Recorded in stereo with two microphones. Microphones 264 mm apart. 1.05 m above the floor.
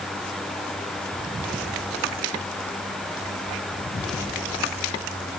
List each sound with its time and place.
Only background noise.